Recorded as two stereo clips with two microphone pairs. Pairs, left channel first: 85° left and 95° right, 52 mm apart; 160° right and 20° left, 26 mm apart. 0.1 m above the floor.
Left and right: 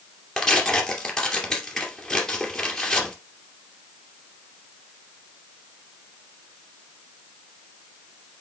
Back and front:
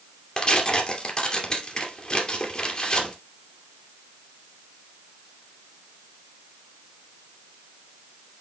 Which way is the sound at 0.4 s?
165° left.